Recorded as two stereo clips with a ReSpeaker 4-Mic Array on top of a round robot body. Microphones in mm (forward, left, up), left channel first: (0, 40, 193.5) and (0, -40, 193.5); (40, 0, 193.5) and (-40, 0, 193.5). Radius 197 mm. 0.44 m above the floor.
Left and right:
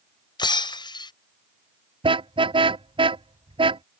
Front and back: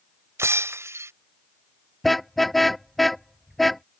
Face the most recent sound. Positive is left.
turn(degrees=-90)